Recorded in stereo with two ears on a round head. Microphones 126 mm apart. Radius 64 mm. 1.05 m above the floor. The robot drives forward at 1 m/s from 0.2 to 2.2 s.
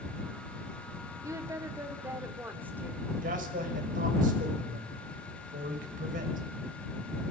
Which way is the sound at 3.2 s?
70° right (ahead or behind).